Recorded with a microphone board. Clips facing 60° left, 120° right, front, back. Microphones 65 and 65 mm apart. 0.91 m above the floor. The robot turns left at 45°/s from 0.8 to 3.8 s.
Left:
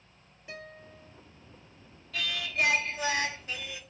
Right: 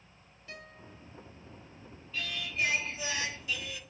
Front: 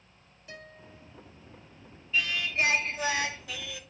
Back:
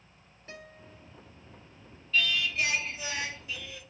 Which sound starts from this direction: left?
Singing, at 2.1 s.